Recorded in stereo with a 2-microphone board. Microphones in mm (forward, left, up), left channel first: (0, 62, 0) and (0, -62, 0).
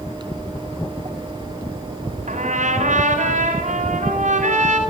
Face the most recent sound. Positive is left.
turn(degrees=-75)  # may be behind; listen again after turning